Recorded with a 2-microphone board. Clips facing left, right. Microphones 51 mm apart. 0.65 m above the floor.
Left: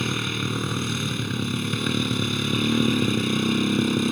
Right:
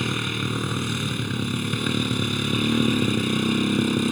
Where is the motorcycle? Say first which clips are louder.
Even; 5° right (ahead or behind).